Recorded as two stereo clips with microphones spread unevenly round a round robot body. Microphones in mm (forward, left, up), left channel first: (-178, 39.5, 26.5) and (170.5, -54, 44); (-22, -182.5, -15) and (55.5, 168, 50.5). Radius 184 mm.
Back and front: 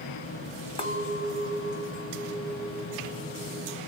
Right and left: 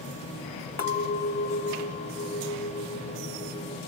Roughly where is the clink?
Behind right.